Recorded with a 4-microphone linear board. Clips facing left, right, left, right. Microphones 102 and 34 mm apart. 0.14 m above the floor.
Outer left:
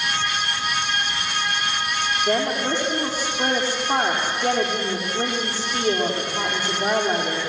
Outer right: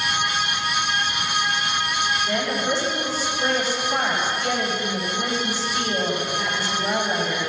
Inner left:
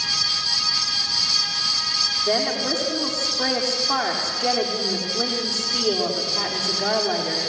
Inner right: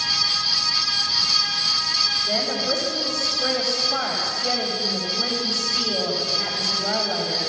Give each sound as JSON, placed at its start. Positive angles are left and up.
{"t": 2.3, "sound": "a woman speaking", "side_deg": 70, "distance_m": 7.0}